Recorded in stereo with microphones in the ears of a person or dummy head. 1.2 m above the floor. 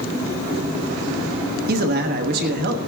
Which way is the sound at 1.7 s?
50° right (ahead or behind).